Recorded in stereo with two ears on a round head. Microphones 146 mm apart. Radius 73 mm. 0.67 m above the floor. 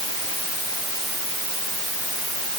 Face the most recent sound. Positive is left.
No sound to turn to.